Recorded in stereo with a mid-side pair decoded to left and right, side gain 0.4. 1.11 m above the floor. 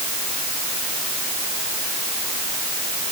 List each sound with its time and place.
Only background noise.